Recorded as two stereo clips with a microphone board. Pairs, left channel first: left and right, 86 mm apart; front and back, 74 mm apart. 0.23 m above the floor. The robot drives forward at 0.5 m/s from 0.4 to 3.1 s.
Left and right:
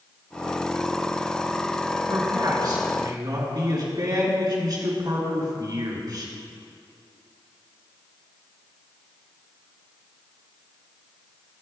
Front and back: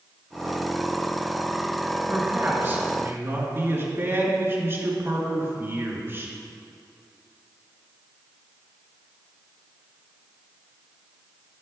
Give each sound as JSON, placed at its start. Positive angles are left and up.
{"t": 2.1, "sound": "a man speaking", "azimuth_deg": -115, "distance_m": 3.5}